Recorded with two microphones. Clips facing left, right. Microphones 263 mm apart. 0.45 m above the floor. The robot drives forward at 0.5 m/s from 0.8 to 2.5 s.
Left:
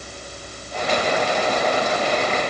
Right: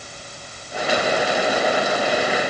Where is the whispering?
No whispering in this recording.